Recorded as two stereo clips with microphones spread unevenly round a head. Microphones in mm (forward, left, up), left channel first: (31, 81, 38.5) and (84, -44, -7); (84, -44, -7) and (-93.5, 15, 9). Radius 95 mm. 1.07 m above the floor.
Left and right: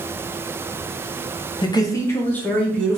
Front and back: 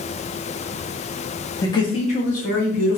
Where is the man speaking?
45° left, 0.7 m; by 3.0 s 20° left, 1.4 m.